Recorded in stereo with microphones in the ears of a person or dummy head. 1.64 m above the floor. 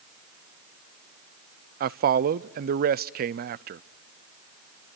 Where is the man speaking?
50° right (ahead or behind), 0.5 m.